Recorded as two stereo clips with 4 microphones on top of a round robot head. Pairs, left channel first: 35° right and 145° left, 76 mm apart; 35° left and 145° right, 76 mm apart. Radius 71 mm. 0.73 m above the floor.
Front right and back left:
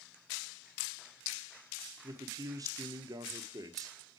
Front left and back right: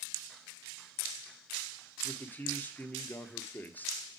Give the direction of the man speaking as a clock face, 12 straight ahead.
9 o'clock.